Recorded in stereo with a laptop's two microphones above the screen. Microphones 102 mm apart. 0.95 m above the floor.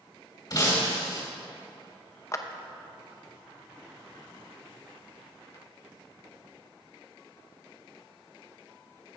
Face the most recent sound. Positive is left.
turn(degrees=30)  # may be behind; listen again after turning